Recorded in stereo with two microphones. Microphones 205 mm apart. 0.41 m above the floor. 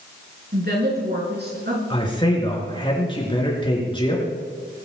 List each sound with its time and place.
0.5 s a woman speaking: 50° right (ahead or behind), 4 m
1.9 s a man speaking: 25° left (ahead or behind), 4.5 m